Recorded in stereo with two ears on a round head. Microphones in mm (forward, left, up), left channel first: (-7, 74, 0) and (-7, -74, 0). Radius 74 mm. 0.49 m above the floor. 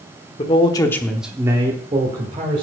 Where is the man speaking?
35° left (ahead or behind), 1.2 m; by 2.6 s 40° right (ahead or behind), 2 m.